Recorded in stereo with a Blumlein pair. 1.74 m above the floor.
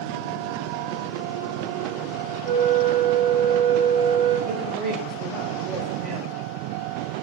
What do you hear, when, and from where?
2.4 s a flute: 50° right, 0.6 m
4.5 s a woman speaking: 45° right, 0.8 m